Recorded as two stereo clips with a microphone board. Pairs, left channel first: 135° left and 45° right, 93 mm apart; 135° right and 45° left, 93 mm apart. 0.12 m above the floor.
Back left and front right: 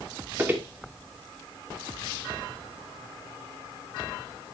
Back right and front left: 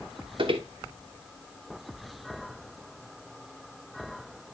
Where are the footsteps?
20° left, 2 m.